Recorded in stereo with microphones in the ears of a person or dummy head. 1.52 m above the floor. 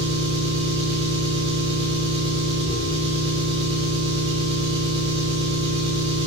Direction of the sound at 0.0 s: 30° right (ahead or behind).